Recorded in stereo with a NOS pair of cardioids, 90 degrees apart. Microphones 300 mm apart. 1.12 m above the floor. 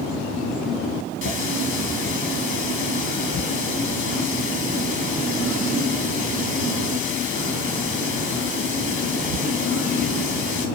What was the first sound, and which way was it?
A running tap, 40° left.